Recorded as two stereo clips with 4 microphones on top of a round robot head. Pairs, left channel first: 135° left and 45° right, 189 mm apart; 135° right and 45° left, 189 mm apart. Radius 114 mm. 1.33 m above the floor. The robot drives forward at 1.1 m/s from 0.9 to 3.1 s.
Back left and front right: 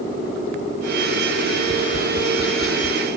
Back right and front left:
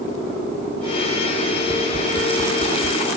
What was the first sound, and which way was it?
Tapping, 160° left.